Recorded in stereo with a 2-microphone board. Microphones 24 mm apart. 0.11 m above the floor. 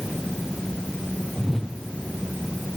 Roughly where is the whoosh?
Centre.